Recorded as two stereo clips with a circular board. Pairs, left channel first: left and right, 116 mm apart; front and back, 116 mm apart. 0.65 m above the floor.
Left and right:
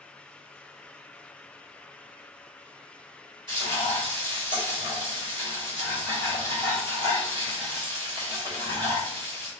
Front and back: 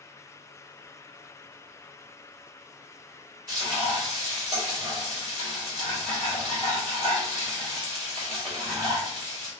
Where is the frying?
130° right, 1.5 m.